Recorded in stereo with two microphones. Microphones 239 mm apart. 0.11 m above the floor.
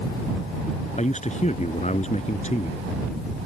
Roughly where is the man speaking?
Left.